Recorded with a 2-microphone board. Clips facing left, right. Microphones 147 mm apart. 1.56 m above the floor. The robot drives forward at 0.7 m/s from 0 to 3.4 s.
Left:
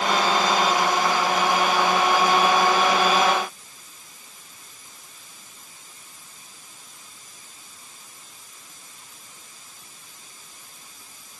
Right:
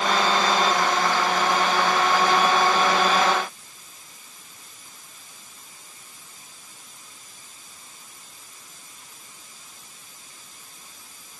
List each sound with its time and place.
Only background noise.